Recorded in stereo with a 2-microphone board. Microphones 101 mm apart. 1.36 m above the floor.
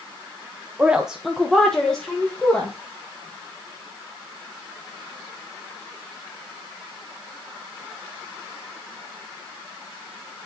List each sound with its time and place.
0.8 s a woman speaking: 15° right (ahead or behind), 0.5 m; by 2.7 s 10° left (ahead or behind), 1.7 m